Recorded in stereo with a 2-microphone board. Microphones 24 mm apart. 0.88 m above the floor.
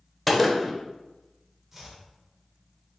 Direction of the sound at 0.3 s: 5° left (ahead or behind).